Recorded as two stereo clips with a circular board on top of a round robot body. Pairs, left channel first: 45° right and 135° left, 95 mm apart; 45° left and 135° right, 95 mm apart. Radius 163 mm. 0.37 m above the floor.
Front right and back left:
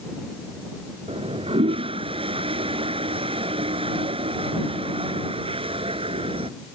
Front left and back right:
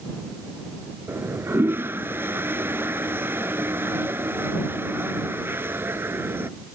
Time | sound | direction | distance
1.1 | a toilet flushing | 160° left | ?